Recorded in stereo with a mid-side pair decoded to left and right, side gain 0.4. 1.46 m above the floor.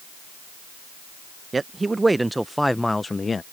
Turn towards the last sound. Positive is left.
turn(degrees=40)